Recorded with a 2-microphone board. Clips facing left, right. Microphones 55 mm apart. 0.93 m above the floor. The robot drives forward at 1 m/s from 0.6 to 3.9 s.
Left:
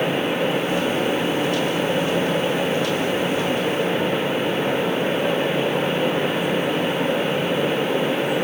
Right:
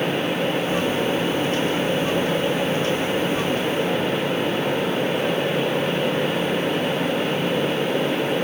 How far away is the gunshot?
No gunshot in this recording.